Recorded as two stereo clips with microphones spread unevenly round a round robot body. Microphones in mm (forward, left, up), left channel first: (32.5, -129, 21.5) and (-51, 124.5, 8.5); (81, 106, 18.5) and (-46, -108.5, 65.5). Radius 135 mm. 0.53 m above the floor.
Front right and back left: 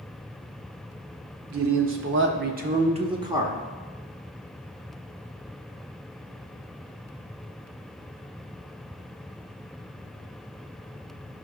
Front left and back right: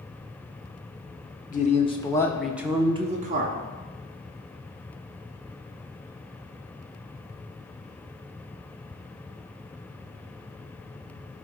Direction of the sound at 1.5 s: 95° left.